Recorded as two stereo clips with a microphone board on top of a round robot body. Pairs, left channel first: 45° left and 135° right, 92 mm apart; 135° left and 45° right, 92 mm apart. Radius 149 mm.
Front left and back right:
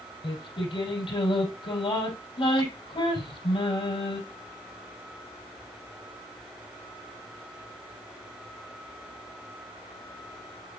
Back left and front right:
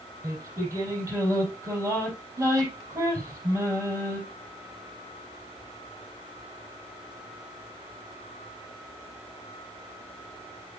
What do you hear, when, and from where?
0.2 s singing: 15° left, 4.5 m